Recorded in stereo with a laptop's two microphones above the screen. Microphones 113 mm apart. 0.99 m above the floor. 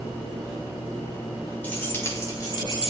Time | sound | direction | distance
1.6 | keys jangling | 15° left (ahead or behind) | 2 m